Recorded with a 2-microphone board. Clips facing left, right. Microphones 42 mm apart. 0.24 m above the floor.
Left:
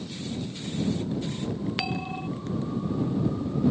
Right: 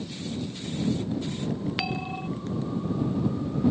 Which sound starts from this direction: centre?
A bell, at 1.8 s.